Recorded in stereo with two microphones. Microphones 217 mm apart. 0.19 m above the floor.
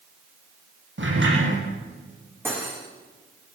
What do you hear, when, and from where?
1.0 s a sliding door: 65° right (ahead or behind), 8 m
2.5 s cutlery clinking: 10° right (ahead or behind), 6.5 m